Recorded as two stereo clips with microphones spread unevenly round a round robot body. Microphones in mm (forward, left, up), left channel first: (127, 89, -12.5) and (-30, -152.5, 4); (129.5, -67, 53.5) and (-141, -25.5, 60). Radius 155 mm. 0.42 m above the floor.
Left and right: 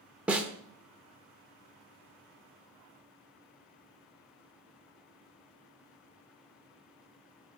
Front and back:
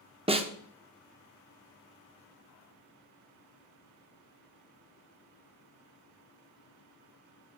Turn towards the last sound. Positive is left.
turn(degrees=150)